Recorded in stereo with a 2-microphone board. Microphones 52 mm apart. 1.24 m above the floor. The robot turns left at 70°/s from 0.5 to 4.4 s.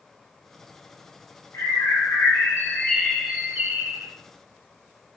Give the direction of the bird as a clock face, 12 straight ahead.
8 o'clock.